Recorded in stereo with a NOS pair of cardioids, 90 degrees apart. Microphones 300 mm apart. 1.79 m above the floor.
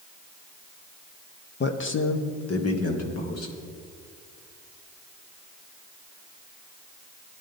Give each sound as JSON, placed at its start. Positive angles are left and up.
{"t": 1.6, "sound": "a man speaking", "azimuth_deg": 35, "distance_m": 1.1}